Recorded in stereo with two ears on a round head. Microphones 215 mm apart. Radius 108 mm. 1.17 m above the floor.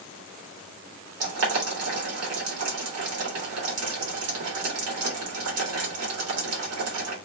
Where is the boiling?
70° right (ahead or behind), 2.0 m.